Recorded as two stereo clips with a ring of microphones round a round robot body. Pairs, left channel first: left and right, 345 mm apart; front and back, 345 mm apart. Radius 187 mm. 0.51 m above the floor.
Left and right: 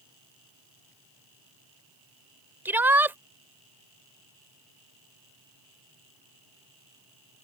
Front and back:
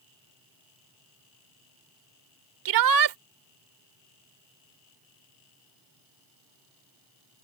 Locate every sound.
2.6 s a shout: 175° right